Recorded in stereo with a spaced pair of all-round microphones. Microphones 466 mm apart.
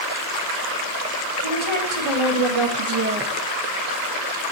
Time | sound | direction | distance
1.4 | a woman speaking | 75° right (ahead or behind) | 2.5 m